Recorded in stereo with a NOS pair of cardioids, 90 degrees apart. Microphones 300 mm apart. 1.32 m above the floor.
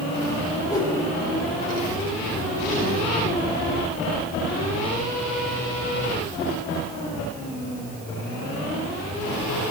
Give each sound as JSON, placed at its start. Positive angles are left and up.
{"t": 0.7, "sound": "a whoosh", "azimuth_deg": 10, "distance_m": 5.0}